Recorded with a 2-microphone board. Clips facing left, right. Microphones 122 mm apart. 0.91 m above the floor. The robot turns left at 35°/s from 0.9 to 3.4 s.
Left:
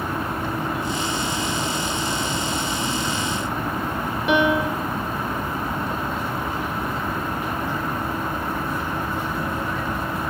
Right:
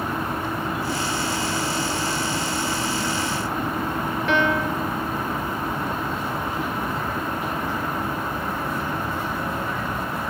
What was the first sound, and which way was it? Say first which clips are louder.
A piano: left 3 dB; 15° left (ahead or behind).